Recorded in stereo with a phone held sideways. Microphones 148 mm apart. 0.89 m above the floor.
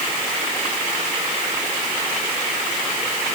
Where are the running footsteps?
I don't hear running footsteps.